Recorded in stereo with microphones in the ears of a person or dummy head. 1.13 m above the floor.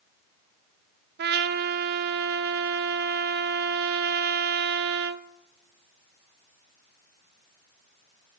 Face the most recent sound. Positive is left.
turn(degrees=-50)  # may be behind; listen again after turning